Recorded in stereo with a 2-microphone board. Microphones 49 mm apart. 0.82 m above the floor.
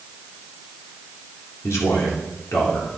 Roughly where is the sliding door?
I don't hear a sliding door.